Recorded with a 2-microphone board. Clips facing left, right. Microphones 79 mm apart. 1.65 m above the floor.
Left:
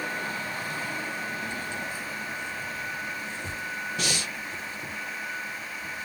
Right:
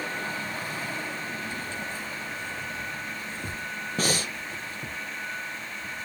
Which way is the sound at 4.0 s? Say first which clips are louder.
Right 7 dB; 40° right (ahead or behind).